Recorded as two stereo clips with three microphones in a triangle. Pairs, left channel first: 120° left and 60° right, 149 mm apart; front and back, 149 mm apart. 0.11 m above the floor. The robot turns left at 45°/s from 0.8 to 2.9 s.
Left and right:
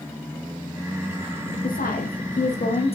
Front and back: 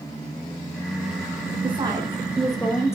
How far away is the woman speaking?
About 5 m.